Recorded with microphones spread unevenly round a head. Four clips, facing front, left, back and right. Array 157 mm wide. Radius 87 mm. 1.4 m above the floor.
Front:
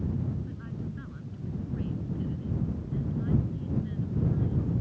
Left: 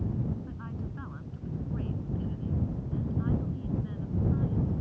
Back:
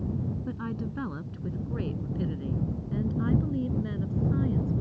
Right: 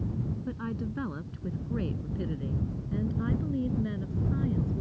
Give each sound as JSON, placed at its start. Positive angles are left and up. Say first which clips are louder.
{"t": 0.5, "sound": "a woman speaking", "louder": "right 6 dB, back 5 dB", "azimuth_deg": -135}